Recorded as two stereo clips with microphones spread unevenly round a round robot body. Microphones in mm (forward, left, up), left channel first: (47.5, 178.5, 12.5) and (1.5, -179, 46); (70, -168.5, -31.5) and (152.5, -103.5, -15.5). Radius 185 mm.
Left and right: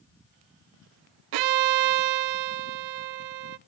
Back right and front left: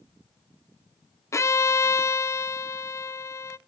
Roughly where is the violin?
Right.